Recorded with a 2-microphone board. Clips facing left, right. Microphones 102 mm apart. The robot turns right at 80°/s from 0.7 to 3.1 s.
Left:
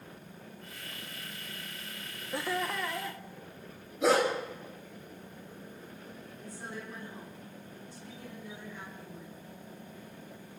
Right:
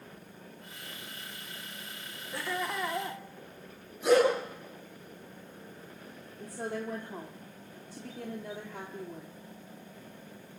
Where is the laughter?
155° left, 1.4 m; by 3.2 s 145° right, 1.4 m.